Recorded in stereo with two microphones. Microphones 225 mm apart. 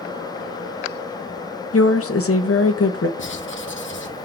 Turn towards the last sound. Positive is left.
turn(degrees=60)  # may be behind; listen again after turning